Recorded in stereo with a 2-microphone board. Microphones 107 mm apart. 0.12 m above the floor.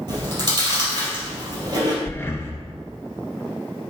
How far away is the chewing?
About 3 m.